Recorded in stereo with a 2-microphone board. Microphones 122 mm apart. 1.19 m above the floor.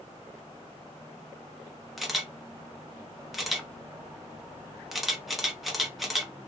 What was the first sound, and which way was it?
A camera shutter, centre (ahead or behind).